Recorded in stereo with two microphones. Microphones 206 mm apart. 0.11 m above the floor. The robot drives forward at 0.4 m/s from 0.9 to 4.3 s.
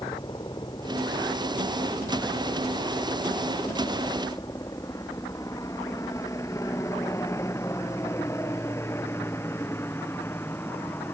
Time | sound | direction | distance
0.0 | a helicopter | 20° left (ahead or behind) | ?